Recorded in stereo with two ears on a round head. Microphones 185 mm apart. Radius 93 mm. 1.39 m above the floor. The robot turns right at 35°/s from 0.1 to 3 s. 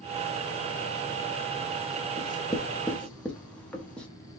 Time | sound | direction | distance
2.2 | writing | 25° left (ahead or behind) | 0.9 m